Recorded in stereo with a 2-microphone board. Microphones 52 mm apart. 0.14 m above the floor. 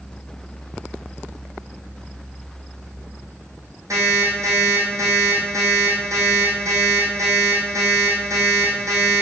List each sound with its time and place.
3.9 s an alarm clock: 75° right (ahead or behind), 3.5 m